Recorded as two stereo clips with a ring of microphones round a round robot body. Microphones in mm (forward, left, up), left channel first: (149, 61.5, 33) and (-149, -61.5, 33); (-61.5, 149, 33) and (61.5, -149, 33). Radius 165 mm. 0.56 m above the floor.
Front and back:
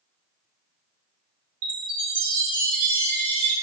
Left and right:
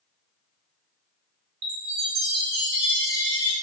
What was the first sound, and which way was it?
A chime, 125° right.